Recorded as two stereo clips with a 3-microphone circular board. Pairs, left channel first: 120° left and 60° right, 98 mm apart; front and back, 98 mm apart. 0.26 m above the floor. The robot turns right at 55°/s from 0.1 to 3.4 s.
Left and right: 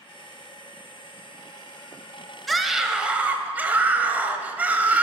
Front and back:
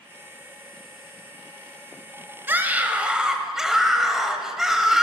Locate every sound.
2.5 s a scream: 155° right, 0.9 m; by 5.0 s 105° right, 0.9 m